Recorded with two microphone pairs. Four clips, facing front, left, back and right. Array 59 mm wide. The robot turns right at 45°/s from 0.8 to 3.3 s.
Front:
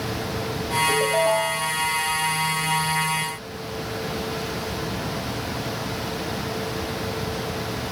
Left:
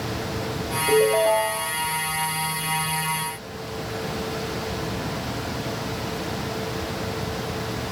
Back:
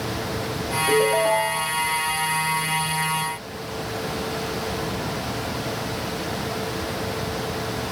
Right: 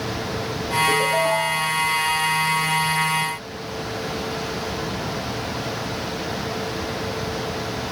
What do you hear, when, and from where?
0.9 s a ringtone: 160° right, 2.5 m; by 1.7 s 120° right, 2.5 m